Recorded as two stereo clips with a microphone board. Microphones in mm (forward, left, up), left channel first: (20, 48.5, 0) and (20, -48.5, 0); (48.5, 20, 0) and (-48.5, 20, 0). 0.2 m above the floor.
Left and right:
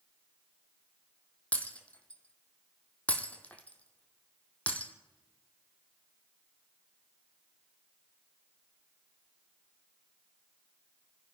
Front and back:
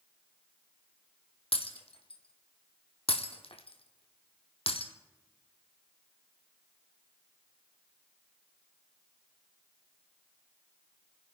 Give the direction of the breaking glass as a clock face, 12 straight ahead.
12 o'clock.